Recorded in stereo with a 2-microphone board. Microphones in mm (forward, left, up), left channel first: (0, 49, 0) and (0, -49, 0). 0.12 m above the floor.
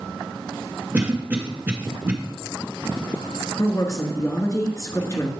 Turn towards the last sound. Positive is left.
turn(degrees=35)  # may be behind; listen again after turning